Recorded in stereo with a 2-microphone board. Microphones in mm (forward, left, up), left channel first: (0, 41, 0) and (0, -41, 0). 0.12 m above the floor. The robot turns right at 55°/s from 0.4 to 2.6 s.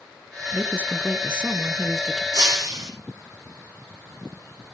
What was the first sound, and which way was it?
A woman speaking, 25° right (ahead or behind).